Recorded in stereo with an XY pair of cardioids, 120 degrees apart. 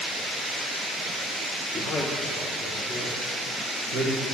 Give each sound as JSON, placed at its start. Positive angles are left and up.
{"t": 1.7, "sound": "a man speaking", "azimuth_deg": 10, "distance_m": 3.0}